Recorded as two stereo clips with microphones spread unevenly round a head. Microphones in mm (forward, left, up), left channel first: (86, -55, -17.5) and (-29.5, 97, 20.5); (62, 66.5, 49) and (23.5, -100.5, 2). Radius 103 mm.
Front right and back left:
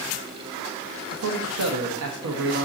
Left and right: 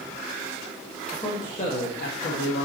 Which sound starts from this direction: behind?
A man speaking, at 1.1 s.